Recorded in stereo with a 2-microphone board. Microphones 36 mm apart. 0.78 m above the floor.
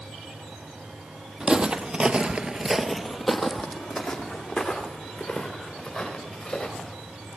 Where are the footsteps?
20° right (ahead or behind), 1.6 m; by 7.0 s 10° left (ahead or behind), 6.5 m.